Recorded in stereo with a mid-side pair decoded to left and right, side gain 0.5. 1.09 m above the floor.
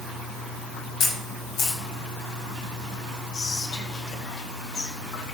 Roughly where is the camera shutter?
Ahead left.